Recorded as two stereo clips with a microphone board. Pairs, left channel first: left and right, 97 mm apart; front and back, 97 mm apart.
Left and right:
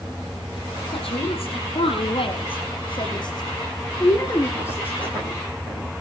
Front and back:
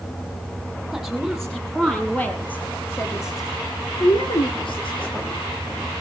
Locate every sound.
0.9 s a woman speaking: 90° left, 6 m; by 5.4 s 10° left, 4.5 m